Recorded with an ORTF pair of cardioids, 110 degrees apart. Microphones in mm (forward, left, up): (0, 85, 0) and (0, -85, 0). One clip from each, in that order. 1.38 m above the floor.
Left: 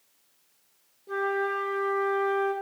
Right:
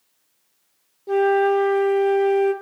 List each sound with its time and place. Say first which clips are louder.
1.1 s a flute: right 10 dB; 55° right, 1.2 m